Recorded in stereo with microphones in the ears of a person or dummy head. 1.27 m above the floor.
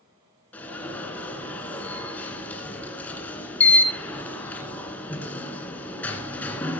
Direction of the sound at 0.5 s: 10° left (ahead or behind).